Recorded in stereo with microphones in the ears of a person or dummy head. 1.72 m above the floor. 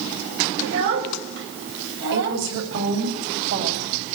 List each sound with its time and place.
0.6 s a child speaking: 80° right, 5.5 m; by 2.4 s 60° right (ahead or behind), 7 m
2.1 s a woman speaking: 65° right (ahead or behind), 9 m